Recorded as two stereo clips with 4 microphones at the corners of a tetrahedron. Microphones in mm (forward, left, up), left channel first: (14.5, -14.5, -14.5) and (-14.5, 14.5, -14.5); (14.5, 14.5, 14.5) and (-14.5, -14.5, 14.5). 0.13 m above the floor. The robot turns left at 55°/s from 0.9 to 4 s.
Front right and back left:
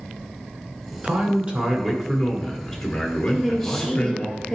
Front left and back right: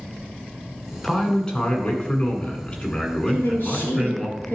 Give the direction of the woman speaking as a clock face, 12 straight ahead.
10 o'clock.